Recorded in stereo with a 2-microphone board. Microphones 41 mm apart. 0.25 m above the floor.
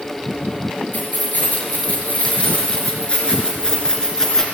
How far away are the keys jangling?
About 3.5 m.